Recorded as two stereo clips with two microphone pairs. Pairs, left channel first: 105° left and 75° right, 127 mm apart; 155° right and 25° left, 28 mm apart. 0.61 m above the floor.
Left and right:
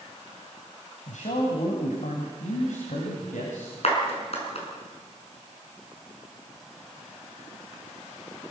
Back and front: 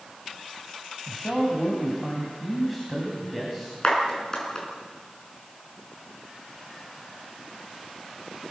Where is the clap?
140° left, 6 m.